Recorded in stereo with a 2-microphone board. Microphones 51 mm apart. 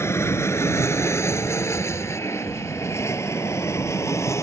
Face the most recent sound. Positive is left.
turn(degrees=70)  # may be behind; listen again after turning